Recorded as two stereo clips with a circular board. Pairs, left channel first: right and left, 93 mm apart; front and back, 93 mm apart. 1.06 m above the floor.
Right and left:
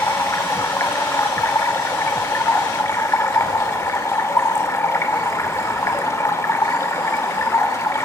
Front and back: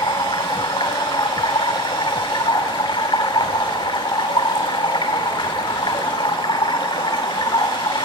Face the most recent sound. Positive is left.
turn(degrees=-30)